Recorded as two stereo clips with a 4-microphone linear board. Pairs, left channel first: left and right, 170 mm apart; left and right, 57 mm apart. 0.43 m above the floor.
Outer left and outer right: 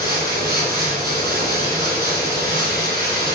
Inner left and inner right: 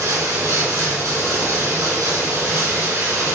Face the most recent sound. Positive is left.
turn(degrees=-70)  # may be behind; listen again after turning